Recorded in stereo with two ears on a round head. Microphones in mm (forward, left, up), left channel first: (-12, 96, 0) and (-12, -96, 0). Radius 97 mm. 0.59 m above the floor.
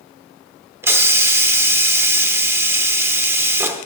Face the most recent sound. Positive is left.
turn(degrees=-10)  # may be behind; listen again after turning